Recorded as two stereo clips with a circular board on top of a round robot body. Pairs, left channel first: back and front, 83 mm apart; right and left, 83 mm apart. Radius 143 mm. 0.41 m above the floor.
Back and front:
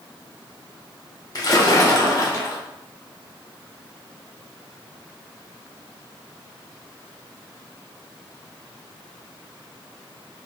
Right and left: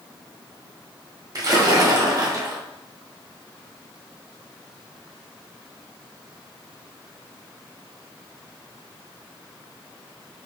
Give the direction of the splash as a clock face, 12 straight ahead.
7 o'clock.